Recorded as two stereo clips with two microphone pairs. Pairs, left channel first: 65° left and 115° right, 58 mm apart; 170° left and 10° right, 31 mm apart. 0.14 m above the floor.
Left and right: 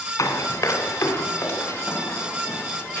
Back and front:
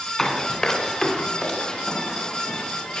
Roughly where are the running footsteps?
Left.